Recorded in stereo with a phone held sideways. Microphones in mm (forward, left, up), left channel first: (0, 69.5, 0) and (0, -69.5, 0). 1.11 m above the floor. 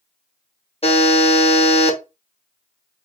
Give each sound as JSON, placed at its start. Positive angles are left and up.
{"t": 0.8, "sound": "a buzzer", "side_deg": 50, "distance_m": 1.0}